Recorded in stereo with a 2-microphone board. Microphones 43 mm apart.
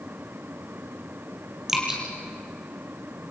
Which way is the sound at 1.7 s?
10° right (ahead or behind).